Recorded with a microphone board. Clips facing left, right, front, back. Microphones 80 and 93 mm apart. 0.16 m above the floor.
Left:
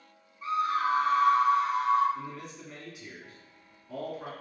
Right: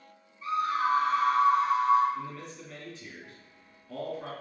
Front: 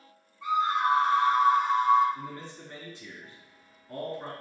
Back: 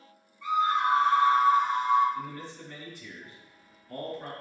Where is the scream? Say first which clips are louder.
Even, even; 60° left, 2.0 m; by 2.0 s 15° right, 1.8 m.